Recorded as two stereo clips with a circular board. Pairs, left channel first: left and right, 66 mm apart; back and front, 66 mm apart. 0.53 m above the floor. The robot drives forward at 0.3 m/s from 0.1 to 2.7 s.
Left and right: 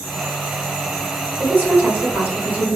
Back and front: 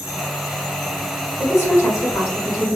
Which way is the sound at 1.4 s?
145° right.